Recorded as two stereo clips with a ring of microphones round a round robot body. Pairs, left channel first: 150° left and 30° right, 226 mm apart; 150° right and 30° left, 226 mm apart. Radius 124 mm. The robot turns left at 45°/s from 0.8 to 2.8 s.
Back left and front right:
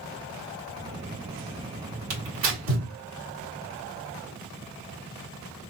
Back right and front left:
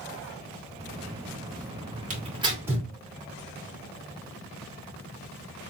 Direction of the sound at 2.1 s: 25° right.